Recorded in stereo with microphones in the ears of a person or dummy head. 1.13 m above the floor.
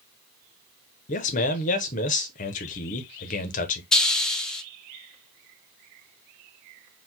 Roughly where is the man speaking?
Left.